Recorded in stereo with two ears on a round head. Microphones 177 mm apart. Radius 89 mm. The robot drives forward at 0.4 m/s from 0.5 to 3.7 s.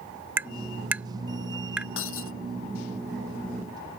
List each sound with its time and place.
0.4 s tapping: 10° right (ahead or behind); by 1.9 s 5° right (ahead or behind)
2.0 s breaking glass: 75° left (ahead or behind)